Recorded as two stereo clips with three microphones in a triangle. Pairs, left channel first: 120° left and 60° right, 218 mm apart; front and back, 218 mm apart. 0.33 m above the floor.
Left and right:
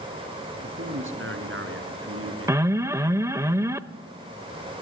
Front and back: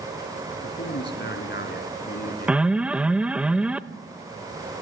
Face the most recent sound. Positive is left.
turn(degrees=-105)